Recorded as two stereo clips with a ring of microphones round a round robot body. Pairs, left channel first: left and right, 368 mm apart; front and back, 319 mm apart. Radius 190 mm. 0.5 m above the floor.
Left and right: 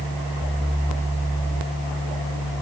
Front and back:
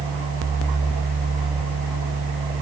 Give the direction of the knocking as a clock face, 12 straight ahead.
No knocking in this recording.